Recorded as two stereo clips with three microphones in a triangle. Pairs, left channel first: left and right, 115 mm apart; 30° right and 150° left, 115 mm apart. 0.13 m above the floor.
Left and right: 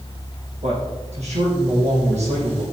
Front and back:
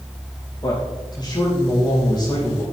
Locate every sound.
0.6 s a man speaking: 80° right, 6.5 m